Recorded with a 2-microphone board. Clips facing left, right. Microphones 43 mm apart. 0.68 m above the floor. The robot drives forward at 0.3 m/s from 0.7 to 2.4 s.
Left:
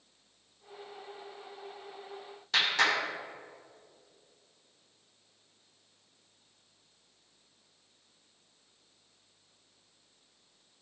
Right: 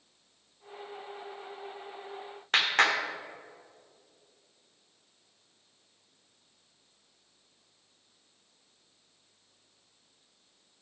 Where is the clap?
50° right (ahead or behind), 1.5 m.